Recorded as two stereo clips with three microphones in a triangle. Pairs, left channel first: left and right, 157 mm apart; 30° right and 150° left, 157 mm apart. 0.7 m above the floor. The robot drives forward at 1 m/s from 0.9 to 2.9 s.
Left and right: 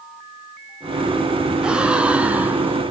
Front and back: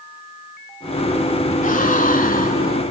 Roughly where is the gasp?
Ahead.